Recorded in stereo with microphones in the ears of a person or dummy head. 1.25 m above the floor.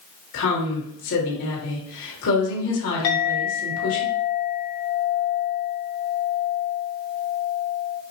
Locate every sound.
0.3 s a woman speaking: 70° left (ahead or behind), 1.7 m
3.0 s a clink: 60° left (ahead or behind), 1.0 m